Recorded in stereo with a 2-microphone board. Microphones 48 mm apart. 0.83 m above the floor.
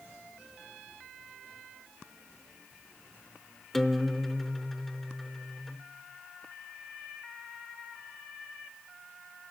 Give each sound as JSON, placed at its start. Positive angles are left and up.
{"t": 3.7, "sound": "a guitar", "side_deg": 5, "distance_m": 0.8}